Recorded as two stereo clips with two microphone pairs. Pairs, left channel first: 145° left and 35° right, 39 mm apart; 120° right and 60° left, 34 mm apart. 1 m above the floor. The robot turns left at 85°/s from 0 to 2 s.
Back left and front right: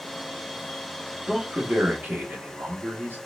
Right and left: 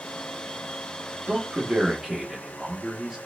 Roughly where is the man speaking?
Ahead left.